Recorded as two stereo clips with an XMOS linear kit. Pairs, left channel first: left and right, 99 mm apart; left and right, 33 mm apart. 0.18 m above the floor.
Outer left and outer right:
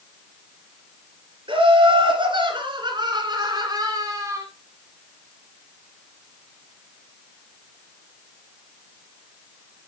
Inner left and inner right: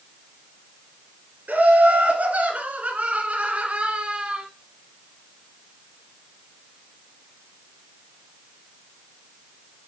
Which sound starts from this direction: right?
Laughter, at 1.5 s.